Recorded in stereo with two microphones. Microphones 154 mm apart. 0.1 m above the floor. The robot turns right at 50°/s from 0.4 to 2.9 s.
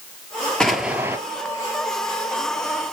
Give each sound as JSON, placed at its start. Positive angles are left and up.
{"t": 0.6, "sound": "an explosion", "side_deg": 5, "distance_m": 0.9}